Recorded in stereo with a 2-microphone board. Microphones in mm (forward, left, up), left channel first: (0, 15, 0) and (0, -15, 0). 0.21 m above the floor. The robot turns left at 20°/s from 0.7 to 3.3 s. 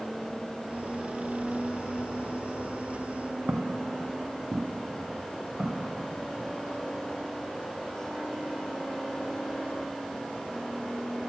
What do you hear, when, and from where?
3.5 s footsteps: 80° right, 0.7 m; by 6.5 s 50° right (ahead or behind), 2 m